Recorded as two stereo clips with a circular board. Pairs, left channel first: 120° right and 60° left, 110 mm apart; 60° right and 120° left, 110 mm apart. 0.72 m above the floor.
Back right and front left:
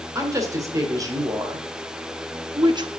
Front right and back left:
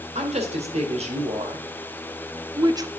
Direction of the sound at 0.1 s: 120° left.